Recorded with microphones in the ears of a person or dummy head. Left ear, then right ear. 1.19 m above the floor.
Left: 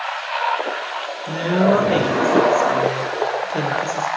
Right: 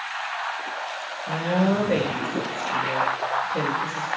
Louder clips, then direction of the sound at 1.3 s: Left 6 dB; 75° left (ahead or behind).